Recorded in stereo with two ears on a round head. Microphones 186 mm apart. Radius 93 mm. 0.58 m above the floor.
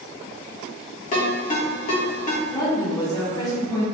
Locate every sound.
1.1 s a ringtone: 35° left (ahead or behind), 0.9 m
2.5 s a woman speaking: 20° left (ahead or behind), 0.9 m